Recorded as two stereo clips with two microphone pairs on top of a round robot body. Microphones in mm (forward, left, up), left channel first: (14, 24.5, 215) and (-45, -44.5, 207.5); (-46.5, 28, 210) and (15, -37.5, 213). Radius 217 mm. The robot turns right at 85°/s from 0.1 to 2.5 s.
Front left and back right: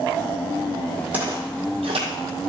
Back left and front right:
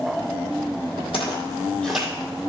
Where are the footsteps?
155° left, 1.9 m; by 2.1 s 120° right, 1.9 m.